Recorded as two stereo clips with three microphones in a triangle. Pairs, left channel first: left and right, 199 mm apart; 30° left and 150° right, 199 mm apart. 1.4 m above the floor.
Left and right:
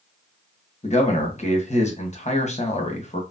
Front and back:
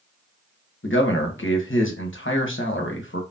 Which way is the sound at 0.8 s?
35° left.